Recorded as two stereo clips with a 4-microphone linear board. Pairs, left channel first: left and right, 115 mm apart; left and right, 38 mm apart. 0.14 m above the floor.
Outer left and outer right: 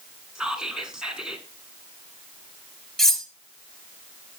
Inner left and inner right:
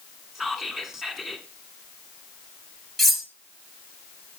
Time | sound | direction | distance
0.3 | whispering | 5° right (ahead or behind) | 1.5 m
3.0 | cutlery clinking | 5° left (ahead or behind) | 1.7 m